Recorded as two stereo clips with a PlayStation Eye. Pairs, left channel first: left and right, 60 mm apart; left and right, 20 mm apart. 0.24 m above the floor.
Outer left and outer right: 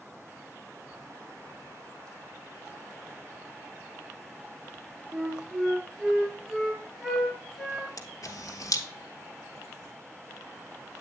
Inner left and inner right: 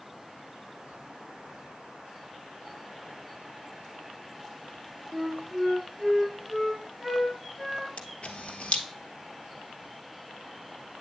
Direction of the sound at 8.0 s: 70° left (ahead or behind).